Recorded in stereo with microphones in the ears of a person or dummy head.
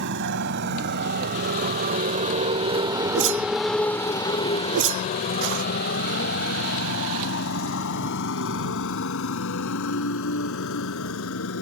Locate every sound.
0.0 s a motorcycle: 60° right (ahead or behind); by 11.6 s 80° left
3.1 s a whoosh: 60° right (ahead or behind)